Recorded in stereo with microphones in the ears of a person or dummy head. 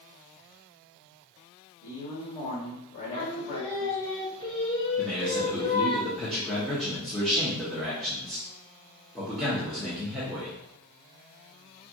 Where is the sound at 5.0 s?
Centre (ahead or behind), 0.9 m.